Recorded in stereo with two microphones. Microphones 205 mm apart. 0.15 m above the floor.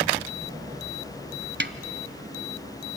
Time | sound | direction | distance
1.6 | a snare drum | 55° right (ahead or behind) | 0.7 m